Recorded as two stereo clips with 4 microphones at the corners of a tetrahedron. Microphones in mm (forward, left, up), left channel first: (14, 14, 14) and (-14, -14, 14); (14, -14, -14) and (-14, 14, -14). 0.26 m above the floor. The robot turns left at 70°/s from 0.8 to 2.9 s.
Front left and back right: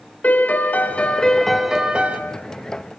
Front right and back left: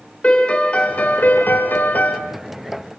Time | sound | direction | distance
0.2 | a piano | 10° left | 2.5 m